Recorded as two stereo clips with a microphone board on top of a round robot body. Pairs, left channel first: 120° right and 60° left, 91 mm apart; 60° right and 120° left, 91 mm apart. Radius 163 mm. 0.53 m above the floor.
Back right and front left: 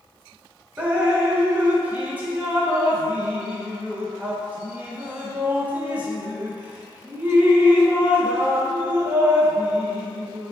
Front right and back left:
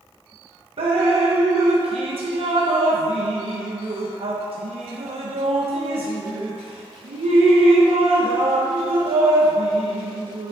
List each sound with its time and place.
0.8 s dripping: 135° left, 0.6 m